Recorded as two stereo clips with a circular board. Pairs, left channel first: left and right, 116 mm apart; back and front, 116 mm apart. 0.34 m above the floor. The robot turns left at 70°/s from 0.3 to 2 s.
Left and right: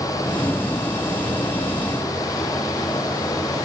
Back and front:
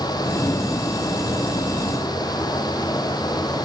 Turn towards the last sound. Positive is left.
No sound to turn to.